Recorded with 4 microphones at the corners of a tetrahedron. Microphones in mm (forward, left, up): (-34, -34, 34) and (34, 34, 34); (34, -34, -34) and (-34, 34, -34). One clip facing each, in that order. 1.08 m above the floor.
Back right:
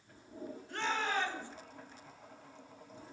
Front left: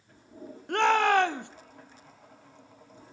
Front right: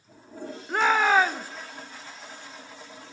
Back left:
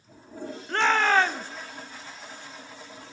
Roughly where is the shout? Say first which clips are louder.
Front left 13 dB, front right 1 dB; ahead left.